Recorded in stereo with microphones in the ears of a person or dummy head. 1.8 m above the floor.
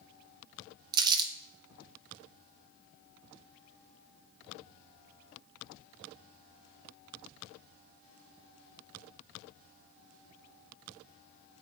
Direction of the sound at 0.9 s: 25° right (ahead or behind).